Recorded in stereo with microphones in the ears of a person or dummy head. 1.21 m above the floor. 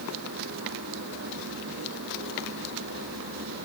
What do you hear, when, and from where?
Only background noise.